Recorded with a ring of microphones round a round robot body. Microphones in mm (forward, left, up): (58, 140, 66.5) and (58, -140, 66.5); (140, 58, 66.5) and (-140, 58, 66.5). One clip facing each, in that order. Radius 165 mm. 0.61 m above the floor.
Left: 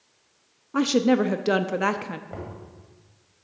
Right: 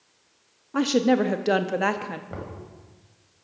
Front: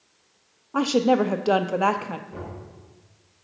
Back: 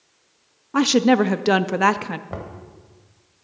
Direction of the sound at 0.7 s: 165° left.